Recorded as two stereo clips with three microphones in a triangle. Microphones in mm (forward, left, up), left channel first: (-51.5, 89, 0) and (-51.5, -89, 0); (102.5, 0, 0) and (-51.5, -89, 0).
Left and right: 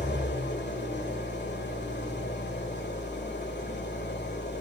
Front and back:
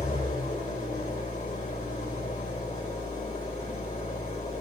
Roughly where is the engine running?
Left.